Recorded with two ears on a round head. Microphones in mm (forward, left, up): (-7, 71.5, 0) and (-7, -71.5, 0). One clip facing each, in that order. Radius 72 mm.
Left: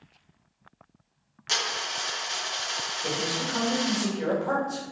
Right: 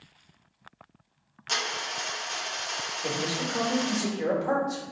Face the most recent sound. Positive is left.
turn(degrees=-10)  # may be behind; listen again after turning